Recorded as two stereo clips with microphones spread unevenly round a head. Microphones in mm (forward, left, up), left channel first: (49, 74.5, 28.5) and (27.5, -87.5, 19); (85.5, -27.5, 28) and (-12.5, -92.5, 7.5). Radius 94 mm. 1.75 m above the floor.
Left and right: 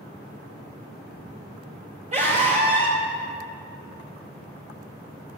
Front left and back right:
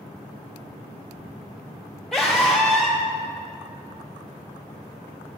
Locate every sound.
2.1 s a scream: 50° right, 0.8 m